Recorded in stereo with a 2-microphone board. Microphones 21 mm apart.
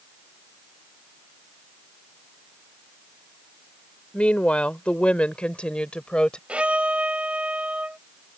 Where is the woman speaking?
70° left (ahead or behind); by 6.4 s 50° left (ahead or behind).